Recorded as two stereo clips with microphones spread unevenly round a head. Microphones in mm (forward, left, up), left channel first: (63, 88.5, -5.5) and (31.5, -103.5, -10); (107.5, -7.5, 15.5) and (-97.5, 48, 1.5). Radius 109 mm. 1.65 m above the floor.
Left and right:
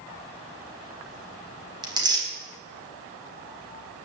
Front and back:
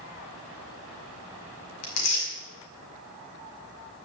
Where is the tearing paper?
30° right, 5 m.